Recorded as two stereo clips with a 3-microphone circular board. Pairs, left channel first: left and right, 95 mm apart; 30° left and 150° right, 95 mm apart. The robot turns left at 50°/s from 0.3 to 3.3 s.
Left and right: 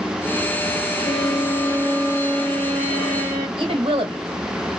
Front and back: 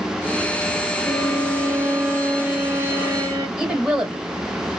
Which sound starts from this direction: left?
A violin, at 1.0 s.